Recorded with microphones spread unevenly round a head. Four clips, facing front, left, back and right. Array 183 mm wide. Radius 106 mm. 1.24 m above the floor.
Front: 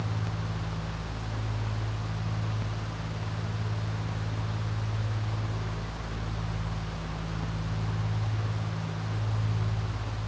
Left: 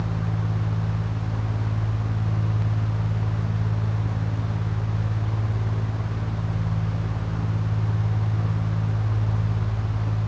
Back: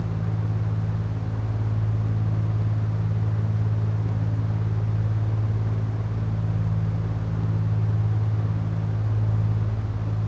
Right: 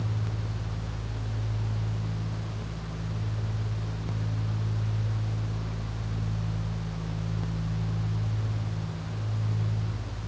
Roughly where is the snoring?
I don't hear snoring.